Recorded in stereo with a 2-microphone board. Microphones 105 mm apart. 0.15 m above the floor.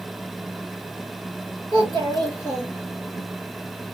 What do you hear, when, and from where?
1.7 s a child speaking: 50° right (ahead or behind), 2.5 m; by 3.2 s 35° right (ahead or behind), 1.5 m